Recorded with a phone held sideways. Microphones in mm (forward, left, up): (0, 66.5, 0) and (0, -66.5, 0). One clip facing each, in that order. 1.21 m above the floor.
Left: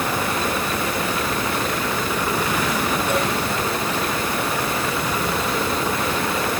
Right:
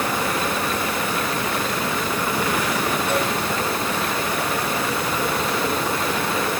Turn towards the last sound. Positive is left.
No sound to turn to.